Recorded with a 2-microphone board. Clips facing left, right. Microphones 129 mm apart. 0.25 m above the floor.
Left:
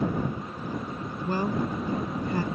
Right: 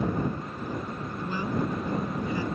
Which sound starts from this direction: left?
A woman speaking, at 1.2 s.